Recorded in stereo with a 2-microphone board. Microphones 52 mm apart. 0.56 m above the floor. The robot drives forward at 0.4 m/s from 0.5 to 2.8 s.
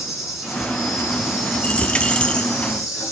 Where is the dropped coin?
30° left (ahead or behind), 0.7 m; by 2.5 s 20° left (ahead or behind), 1.0 m.